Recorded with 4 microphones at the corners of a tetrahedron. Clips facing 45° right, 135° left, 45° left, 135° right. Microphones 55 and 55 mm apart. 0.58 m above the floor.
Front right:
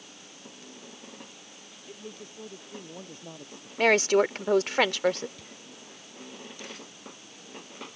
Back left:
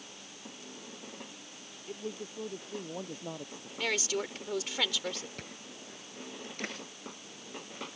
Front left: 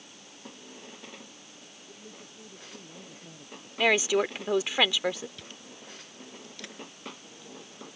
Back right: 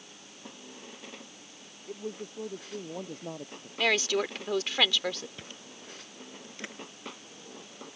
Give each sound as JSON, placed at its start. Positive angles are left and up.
{"t": 1.9, "sound": "a man speaking", "azimuth_deg": -150}
{"t": 3.8, "sound": "a woman speaking", "azimuth_deg": -30}
{"t": 5.4, "sound": "chewing", "azimuth_deg": 165}